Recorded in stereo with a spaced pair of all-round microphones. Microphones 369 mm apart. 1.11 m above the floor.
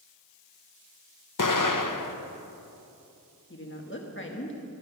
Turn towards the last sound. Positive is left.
turn(degrees=30)  # may be behind; listen again after turning